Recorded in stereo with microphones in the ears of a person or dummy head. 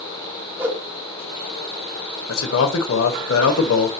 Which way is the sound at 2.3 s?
70° left (ahead or behind).